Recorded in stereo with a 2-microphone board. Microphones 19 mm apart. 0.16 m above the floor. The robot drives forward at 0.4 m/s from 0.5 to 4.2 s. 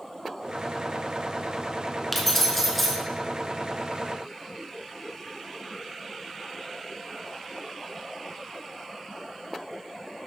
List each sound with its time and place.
2.1 s keys jangling: 10° left (ahead or behind), 1.4 m; by 3.0 s 5° left (ahead or behind), 1.7 m